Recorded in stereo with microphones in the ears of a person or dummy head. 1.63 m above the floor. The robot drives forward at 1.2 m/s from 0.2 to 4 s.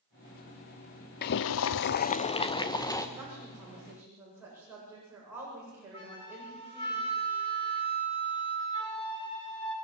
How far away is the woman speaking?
About 7 m.